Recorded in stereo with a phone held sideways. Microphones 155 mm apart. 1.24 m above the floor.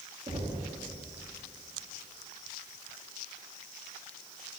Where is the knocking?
35° right (ahead or behind), 1.8 m.